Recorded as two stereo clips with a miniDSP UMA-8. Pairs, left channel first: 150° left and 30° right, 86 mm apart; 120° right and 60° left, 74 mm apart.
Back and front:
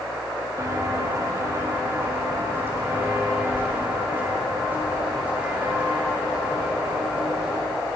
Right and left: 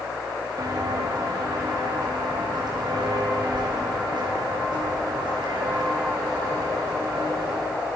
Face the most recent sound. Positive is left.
turn(degrees=50)